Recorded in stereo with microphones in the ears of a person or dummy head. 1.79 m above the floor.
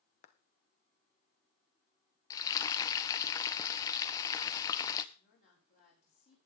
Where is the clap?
40° left (ahead or behind), 1.1 m.